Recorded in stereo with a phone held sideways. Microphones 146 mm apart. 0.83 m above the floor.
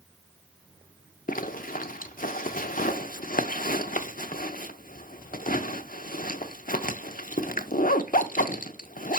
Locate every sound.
1.3 s a zipper: 70° left (ahead or behind), 0.7 m